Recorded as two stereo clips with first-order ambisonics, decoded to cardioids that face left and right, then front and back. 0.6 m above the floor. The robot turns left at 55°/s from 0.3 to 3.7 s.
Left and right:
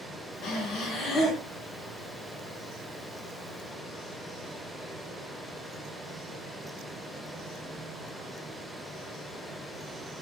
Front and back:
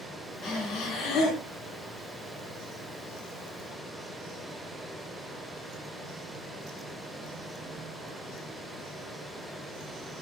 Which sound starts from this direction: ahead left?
Breathing, at 0.4 s.